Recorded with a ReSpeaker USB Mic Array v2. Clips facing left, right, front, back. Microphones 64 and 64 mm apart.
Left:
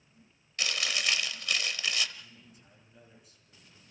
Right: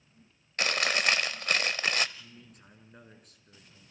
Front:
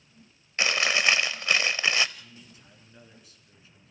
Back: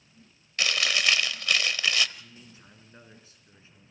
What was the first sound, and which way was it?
Chewing, 60° right.